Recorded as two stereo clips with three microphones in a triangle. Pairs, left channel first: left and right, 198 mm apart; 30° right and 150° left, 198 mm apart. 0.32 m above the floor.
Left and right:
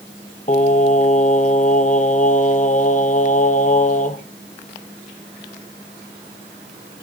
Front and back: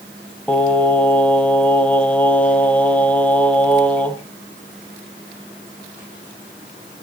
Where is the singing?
50° left, 1.8 m.